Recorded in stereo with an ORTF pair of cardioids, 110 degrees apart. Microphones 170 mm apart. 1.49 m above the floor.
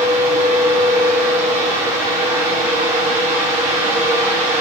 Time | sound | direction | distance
0.0 | a fan | 50° right | 4 m